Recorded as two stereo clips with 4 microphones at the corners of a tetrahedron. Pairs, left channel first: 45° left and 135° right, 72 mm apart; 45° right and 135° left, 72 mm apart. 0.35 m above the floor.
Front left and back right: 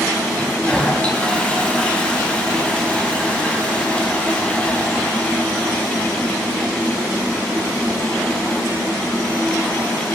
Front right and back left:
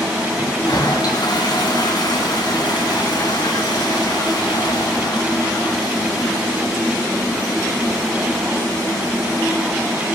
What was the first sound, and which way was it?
A toilet flushing, 30° right.